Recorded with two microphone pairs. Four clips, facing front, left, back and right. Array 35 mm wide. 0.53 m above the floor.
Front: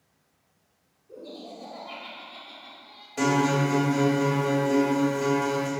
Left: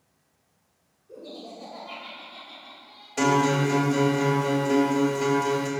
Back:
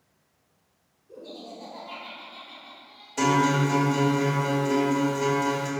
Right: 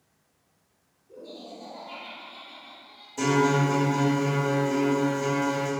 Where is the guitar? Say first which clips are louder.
Left 1 dB, back 1 dB; 85° left, 2 m.